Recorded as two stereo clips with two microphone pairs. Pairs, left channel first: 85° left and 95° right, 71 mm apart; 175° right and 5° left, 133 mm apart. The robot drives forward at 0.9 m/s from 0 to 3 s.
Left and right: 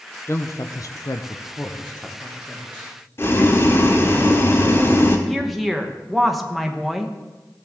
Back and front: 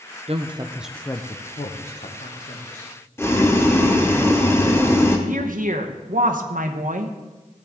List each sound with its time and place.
0.3 s a woman speaking: 35° left, 0.7 m; by 2.9 s 170° left, 1.9 m
3.2 s boiling: 120° left, 1.1 m
5.3 s a woman speaking: 5° right, 1.0 m